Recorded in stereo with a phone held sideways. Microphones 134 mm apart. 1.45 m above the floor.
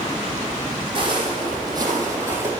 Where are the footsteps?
40° right (ahead or behind), 2.5 m; by 2.5 s 15° right (ahead or behind), 2.5 m.